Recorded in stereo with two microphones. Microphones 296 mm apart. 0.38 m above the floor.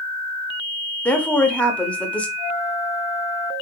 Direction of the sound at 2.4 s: 5° left (ahead or behind).